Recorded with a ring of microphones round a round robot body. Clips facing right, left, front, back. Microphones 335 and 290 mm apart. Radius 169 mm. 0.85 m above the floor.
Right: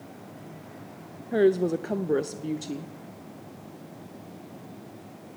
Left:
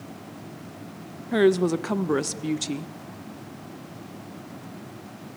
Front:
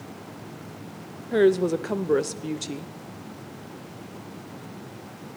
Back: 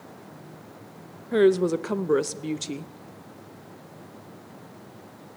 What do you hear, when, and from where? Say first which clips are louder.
1.3 s a woman speaking: left 2 dB, even; 105° left, 0.5 m